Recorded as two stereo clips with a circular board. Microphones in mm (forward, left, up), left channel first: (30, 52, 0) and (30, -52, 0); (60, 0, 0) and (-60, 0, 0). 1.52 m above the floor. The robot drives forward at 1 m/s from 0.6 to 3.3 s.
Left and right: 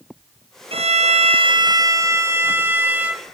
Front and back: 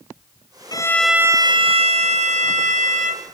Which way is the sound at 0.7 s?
60° right.